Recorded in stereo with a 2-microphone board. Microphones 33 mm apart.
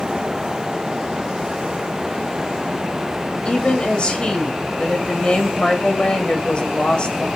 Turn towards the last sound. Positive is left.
turn(degrees=35)  # may be behind; listen again after turning